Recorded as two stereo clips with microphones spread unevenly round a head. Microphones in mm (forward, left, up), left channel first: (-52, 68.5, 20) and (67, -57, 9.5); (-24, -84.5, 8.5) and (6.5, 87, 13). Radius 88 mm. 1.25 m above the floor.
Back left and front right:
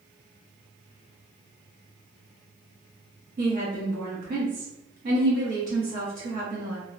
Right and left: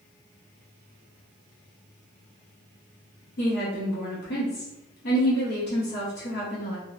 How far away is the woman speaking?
About 0.9 m.